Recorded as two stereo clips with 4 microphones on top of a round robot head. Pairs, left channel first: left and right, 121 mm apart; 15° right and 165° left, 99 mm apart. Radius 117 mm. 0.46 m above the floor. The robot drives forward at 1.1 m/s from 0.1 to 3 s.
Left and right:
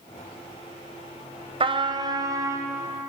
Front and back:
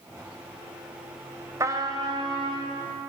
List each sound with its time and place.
1.6 s a trumpet: 130° right, 1.3 m; by 2.7 s 155° right, 2.5 m